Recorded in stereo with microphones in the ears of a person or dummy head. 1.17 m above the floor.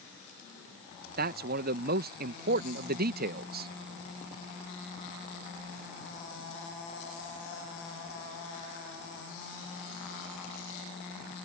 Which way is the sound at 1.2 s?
55° right (ahead or behind).